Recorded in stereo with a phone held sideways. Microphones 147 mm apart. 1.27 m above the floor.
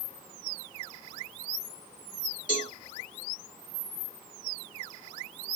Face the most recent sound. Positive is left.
turn(degrees=70)  # may be behind; listen again after turning